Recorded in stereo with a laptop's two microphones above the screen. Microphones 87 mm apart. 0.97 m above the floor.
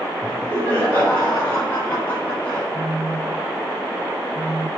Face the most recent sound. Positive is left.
turn(degrees=70)  # may be behind; listen again after turning